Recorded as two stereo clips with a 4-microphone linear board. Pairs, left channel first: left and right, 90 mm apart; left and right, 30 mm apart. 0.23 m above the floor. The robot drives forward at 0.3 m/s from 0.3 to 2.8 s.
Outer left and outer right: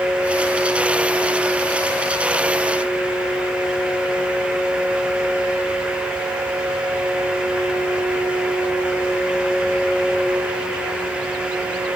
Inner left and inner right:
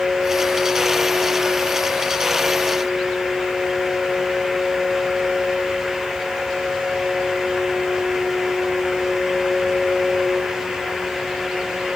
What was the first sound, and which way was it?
Only background noise.